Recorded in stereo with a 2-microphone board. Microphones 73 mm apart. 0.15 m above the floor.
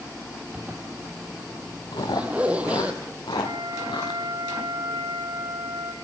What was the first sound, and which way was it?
A zipper, 15° right (ahead or behind).